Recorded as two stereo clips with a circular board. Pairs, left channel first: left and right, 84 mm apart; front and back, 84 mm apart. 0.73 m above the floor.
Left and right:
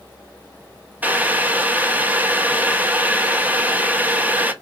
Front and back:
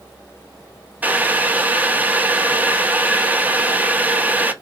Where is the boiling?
135° right, 0.5 m.